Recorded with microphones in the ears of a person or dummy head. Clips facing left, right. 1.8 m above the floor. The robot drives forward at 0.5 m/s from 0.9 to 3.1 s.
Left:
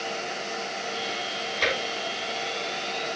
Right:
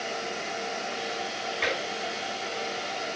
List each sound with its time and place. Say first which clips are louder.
1.6 s tapping: left 3 dB; 60° left (ahead or behind), 6 m